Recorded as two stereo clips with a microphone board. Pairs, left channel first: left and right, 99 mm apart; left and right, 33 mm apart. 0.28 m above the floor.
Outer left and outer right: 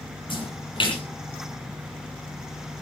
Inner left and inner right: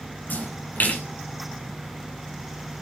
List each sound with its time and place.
0.3 s a splash: 60° left (ahead or behind), 7.5 m